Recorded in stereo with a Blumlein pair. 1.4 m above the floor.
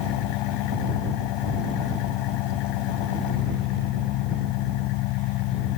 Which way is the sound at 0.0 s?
40° left.